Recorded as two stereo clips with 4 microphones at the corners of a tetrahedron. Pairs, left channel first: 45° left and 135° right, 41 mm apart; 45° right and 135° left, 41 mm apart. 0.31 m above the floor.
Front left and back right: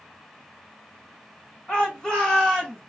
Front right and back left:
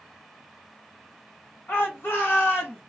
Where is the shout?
15° right, 2.5 m; by 2.8 s 30° right, 1.6 m.